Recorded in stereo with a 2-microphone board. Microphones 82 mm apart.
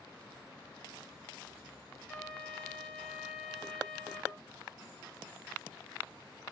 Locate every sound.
2.1 s a trumpet: centre (ahead or behind), 3 m